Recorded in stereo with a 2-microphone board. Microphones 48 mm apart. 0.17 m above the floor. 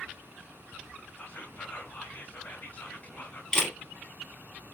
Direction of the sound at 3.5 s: 10° left (ahead or behind).